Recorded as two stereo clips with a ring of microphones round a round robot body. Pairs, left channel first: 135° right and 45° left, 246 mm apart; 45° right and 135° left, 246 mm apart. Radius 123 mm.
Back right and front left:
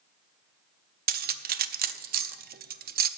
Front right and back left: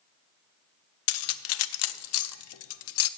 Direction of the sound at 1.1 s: 10° right.